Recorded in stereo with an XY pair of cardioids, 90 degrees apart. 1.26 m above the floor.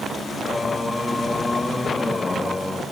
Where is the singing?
25° left, 0.8 m.